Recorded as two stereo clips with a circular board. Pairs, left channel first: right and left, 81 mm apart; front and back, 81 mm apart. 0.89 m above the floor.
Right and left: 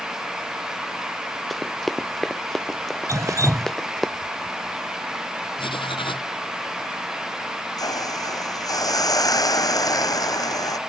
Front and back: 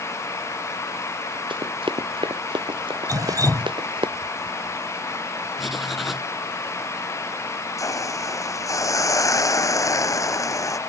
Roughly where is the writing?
Right.